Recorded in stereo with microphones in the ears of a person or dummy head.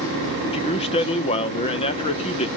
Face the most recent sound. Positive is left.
turn(degrees=30)  # may be behind; listen again after turning